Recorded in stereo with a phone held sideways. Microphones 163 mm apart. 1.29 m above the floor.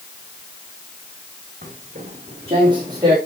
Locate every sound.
1.6 s footsteps: 50° right (ahead or behind), 3.5 m; by 3.2 s 20° right (ahead or behind), 4.5 m